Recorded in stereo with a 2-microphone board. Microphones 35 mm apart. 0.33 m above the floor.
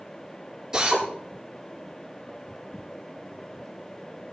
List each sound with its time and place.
0.7 s a drill: 20° right (ahead or behind), 6 m